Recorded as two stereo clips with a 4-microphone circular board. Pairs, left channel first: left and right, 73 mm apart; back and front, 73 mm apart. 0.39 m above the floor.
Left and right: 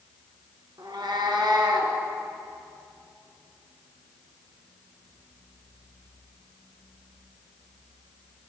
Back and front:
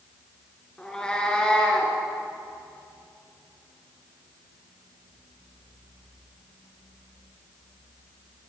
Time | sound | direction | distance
0.8 | a cat meowing | 100° right | 1.8 m